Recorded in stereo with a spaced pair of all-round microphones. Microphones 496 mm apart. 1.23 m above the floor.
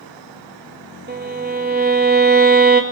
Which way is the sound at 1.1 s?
20° right (ahead or behind).